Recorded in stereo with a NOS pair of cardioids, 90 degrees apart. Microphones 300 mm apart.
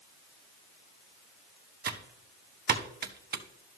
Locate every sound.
1.9 s typing on a keyboard: 30° right, 0.9 m